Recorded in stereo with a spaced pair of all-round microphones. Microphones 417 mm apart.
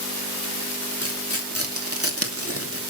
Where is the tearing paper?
35° right (ahead or behind), 2.5 m.